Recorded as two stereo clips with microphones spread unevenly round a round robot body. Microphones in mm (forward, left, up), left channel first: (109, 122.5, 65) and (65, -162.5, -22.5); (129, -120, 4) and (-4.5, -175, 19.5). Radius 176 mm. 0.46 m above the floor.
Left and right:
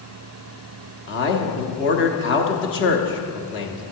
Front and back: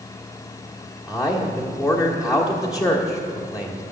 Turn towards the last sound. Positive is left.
turn(degrees=105)